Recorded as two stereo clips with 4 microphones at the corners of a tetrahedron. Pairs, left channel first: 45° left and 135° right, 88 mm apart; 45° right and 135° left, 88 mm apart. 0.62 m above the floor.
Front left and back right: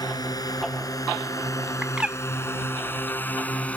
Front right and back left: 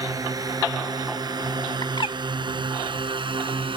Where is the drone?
85° left; by 3.8 s 120° left.